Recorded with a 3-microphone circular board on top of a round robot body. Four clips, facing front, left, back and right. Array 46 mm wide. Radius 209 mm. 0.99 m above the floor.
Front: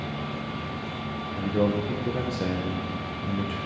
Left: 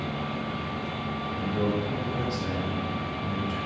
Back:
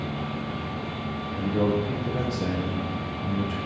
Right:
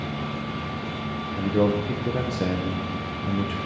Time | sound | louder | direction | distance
1.4 | a man speaking | right 6 dB, even | 75° right | 0.7 m